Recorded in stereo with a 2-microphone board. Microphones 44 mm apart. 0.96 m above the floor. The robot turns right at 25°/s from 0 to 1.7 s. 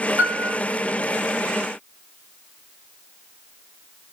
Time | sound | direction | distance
0.2 | a piano | 45° right (ahead or behind) | 1.4 m